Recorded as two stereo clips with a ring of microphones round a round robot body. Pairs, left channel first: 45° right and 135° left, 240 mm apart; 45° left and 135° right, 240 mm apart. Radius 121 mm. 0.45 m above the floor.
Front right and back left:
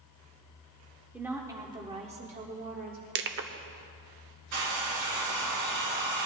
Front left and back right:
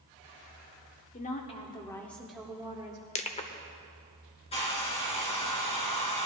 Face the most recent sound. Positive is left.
turn(degrees=110)